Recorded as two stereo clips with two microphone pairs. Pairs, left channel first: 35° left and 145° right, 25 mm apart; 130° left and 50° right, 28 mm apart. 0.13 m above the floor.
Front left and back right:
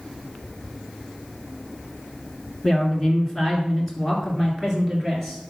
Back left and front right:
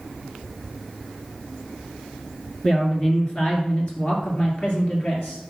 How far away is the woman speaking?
About 1.8 m.